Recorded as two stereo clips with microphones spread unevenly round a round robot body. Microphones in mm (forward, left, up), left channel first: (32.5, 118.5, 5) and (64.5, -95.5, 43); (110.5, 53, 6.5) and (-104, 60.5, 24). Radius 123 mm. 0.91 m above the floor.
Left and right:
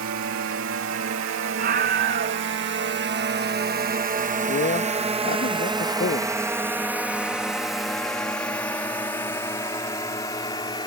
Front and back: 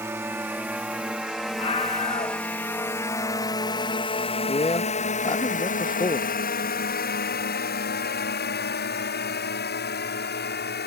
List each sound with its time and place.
0.0 s a drone: 100° right; by 10.9 s 30° left
1.6 s a scream: 45° right
4.5 s a man speaking: 60° left